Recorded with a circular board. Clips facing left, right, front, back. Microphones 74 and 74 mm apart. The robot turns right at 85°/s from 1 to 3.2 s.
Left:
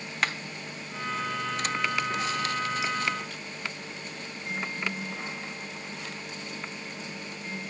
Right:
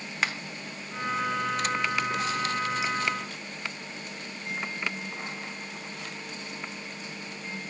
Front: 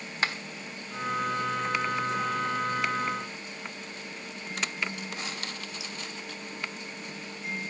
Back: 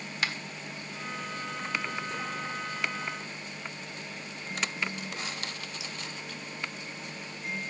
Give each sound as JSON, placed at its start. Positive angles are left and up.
{"t": 0.2, "sound": "a finger snap", "azimuth_deg": -5, "distance_m": 1.1}